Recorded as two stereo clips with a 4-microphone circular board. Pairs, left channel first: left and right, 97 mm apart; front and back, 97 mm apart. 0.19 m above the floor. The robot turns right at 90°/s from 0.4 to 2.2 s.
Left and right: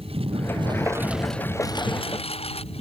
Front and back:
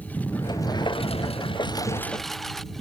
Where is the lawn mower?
75° right; by 2.8 s 85° left.